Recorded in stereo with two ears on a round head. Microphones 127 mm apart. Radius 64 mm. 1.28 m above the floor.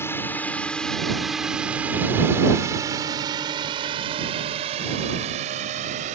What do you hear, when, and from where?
0.0 s a drone: 15° left (ahead or behind); by 6.2 s 55° right (ahead or behind)